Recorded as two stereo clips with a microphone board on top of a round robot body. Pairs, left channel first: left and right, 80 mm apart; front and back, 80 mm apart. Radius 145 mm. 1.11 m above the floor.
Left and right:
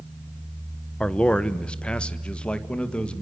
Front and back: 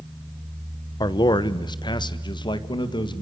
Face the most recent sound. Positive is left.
turn(degrees=15)